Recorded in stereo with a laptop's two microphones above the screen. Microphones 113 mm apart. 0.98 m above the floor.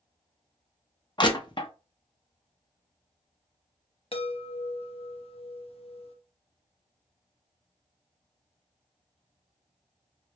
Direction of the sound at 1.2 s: 45° left (ahead or behind).